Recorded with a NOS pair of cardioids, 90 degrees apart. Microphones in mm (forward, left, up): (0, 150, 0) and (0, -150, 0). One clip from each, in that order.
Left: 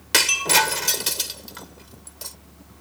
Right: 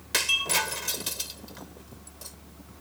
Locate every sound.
0.1 s breaking glass: 55° left